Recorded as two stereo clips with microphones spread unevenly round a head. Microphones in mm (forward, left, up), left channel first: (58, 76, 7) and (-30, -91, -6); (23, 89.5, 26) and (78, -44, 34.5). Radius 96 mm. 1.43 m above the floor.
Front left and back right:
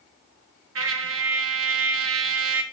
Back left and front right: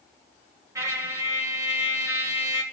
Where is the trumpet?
140° right, 1.7 m.